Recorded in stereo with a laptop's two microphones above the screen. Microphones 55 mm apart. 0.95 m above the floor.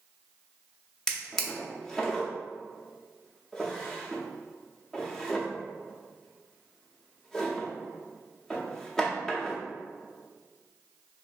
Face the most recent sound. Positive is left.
turn(degrees=10)  # may be behind; listen again after turning